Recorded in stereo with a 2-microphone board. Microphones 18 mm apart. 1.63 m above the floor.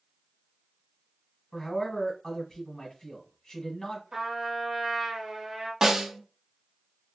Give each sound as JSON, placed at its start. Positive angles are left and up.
{"t": 1.5, "sound": "a man speaking", "side_deg": 30, "distance_m": 1.5}
{"t": 4.1, "sound": "a trumpet", "side_deg": -35, "distance_m": 1.1}
{"t": 5.8, "sound": "a snare drum", "side_deg": -25, "distance_m": 0.5}